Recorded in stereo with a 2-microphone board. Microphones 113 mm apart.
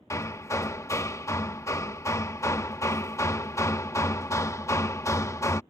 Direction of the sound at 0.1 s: 25° left (ahead or behind).